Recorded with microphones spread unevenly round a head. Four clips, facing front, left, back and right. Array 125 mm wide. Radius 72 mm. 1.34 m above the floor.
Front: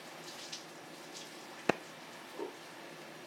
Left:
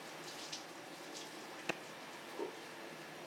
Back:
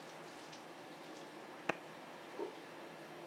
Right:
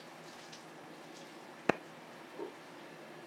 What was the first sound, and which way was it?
A clap, 40° right.